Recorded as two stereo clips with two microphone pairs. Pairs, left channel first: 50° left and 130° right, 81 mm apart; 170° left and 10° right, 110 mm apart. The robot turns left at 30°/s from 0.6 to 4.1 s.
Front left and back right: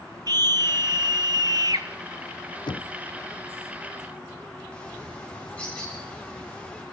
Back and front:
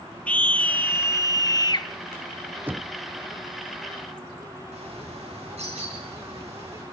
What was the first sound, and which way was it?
A scream, 115° right.